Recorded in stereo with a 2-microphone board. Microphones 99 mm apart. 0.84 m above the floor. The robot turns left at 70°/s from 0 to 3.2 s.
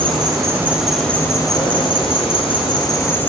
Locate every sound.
0.0 s an insect: 115° right, 2.5 m; by 3.3 s 20° left, 2.5 m